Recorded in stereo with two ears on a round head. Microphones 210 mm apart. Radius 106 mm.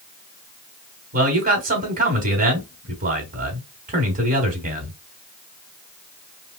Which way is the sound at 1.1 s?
35° right (ahead or behind).